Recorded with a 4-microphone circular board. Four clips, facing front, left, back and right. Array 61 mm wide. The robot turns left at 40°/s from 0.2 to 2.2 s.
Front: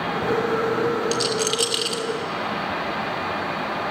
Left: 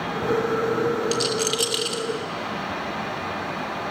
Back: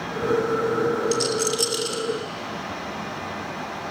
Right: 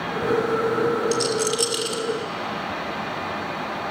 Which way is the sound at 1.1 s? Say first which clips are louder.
Right 2 dB, even; 45° left.